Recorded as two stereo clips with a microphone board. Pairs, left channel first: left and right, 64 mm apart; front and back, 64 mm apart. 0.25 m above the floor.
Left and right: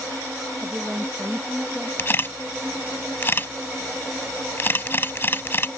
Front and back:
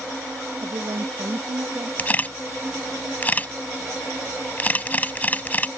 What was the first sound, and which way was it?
A woman speaking, 170° right.